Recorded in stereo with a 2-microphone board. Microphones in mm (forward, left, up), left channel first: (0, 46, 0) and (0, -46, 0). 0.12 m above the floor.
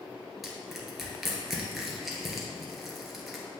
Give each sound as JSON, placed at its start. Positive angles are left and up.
{"t": 0.4, "sound": "crushing", "side_deg": 0, "distance_m": 1.5}